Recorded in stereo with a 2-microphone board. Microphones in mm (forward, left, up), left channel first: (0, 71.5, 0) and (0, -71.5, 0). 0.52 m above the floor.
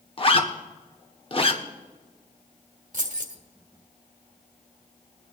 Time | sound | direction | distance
0.2 | a zipper | 40° left (ahead or behind) | 1.4 m
2.9 | keys jangling | 70° right (ahead or behind) | 1.8 m